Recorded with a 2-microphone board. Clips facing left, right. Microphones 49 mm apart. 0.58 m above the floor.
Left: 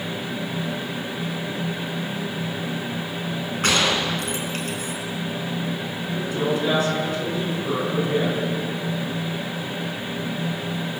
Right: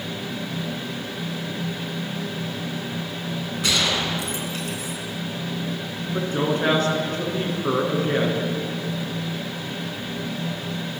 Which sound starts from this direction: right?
A woman speaking, at 6.1 s.